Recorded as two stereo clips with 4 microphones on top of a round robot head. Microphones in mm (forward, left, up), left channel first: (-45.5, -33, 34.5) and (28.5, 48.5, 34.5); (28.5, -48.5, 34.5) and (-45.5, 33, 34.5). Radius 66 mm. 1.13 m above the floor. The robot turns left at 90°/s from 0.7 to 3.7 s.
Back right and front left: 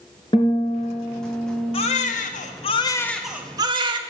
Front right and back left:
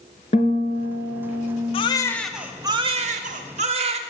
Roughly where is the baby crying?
Right.